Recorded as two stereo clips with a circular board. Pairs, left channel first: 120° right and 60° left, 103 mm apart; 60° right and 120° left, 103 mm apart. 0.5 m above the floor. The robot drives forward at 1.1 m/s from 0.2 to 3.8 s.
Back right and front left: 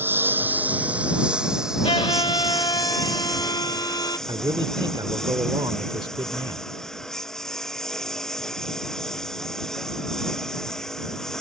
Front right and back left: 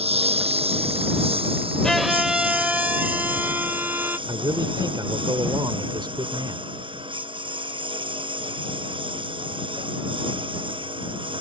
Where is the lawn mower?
130° left; by 11.4 s 155° left.